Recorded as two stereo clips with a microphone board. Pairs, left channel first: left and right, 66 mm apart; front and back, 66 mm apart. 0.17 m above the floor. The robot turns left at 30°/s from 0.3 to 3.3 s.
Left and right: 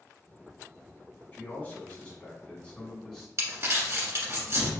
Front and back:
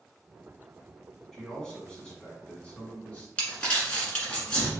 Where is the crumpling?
65° right, 1.5 m.